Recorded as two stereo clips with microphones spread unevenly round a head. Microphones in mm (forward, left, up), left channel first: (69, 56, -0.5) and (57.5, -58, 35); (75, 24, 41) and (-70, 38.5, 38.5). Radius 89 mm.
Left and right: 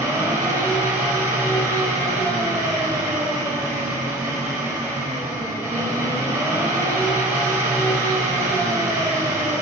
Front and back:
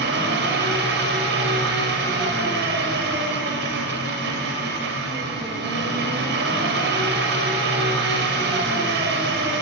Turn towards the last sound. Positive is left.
turn(degrees=-170)